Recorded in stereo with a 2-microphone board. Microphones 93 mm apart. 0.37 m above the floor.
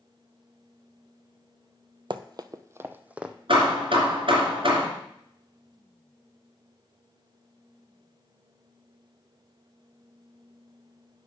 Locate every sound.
2.1 s running footsteps: 60° right (ahead or behind), 0.6 m; by 3.4 s 10° right (ahead or behind), 1.0 m
3.5 s hammering: 70° right (ahead or behind), 3 m